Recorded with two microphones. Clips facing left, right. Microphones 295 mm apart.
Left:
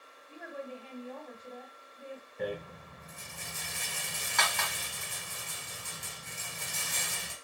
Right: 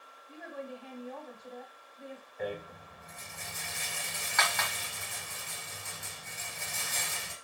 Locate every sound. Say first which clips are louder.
0.3 s a woman speaking: even; 5° left (ahead or behind), 1.6 m
2.4 s a rattle: left 1 dB; 40° left (ahead or behind), 1.2 m